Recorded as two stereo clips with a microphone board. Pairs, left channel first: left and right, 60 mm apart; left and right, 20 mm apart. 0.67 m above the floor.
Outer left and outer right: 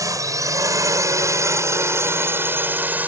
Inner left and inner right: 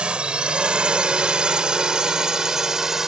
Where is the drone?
70° right (ahead or behind); by 3.1 s 25° right (ahead or behind).